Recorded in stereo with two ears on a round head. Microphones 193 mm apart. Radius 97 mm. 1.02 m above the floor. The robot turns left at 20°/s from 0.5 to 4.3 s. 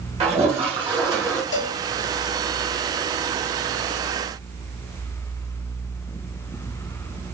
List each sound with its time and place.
0.2 s a toilet flushing: 30° right (ahead or behind), 1.1 m; by 1.4 s 15° right (ahead or behind), 1.1 m
1.5 s a cowbell: 55° left (ahead or behind), 0.7 m; by 1.8 s 60° left (ahead or behind), 0.7 m